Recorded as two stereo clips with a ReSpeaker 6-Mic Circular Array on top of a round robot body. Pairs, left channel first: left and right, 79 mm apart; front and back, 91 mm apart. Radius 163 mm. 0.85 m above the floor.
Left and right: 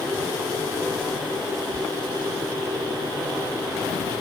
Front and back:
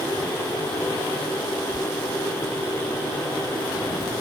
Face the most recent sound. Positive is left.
turn(degrees=-120)